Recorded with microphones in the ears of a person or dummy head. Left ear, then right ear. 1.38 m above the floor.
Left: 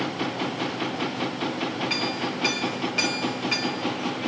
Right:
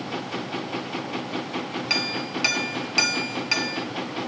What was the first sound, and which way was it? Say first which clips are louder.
A clink: right 1 dB; 30° right (ahead or behind).